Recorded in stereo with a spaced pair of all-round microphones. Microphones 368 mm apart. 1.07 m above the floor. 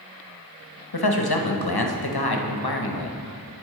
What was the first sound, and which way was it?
A man speaking, 85° left.